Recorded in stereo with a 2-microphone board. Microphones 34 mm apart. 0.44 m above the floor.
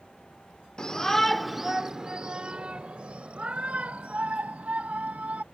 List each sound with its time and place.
0.8 s a shout: 25° left (ahead or behind); by 5.4 s 50° right (ahead or behind)